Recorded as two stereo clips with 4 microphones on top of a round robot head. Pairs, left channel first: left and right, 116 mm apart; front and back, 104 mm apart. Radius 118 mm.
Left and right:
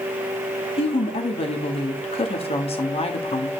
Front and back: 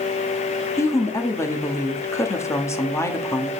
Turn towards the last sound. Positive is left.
turn(degrees=60)